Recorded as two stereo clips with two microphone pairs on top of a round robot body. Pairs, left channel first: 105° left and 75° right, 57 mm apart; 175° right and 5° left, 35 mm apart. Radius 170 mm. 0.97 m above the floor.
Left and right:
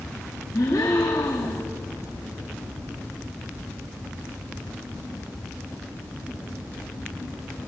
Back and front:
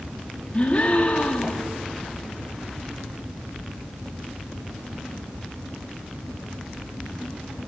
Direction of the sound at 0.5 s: 130° left.